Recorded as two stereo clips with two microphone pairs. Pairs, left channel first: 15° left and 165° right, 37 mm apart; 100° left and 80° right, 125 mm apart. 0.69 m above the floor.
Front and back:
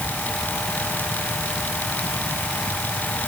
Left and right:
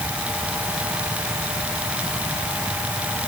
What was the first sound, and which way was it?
Only background noise.